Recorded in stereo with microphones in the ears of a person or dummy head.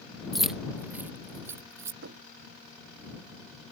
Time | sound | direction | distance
0.3 | keys jangling | 5° left (ahead or behind) | ?
2.0 | knocking | 65° right (ahead or behind) | ?